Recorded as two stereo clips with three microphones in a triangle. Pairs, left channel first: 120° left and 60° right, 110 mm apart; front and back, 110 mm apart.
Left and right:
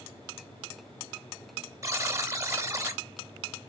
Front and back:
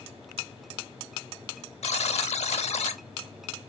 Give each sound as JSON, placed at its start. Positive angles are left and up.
{"t": 1.8, "sound": "a buzzer", "azimuth_deg": 0, "distance_m": 0.5}